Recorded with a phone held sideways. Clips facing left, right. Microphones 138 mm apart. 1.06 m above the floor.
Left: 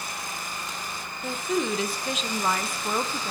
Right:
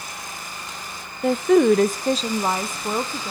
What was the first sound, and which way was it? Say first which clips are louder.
A woman speaking: right 12 dB; 70° right (ahead or behind).